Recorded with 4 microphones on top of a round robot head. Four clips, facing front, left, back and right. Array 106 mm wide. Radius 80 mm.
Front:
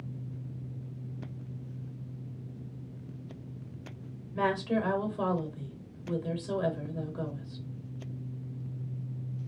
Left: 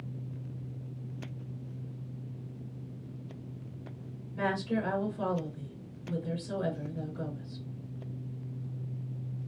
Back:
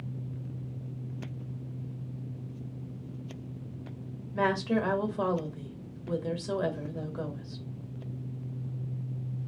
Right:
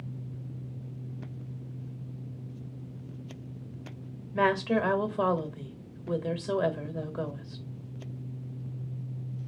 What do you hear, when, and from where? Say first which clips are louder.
4.3 s a woman speaking: right 6 dB, back 1 dB; 110° right, 1.1 m